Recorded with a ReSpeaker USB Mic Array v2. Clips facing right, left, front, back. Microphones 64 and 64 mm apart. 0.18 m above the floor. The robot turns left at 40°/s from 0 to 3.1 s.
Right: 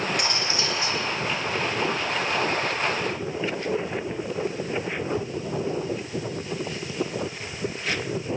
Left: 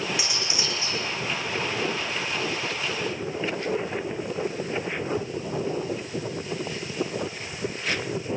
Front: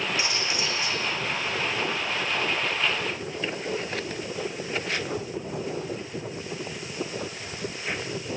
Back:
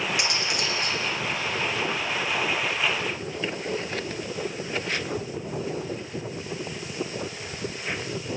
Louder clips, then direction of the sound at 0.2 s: Right 3 dB, back 1 dB; 175° left.